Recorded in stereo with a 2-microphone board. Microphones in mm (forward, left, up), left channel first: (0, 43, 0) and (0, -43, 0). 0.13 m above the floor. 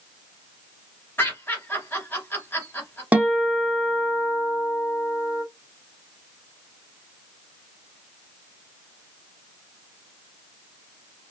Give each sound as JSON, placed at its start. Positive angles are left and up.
{"t": 1.2, "sound": "laughter", "side_deg": 25, "distance_m": 2.0}
{"t": 3.1, "sound": "a guitar", "side_deg": -15, "distance_m": 0.9}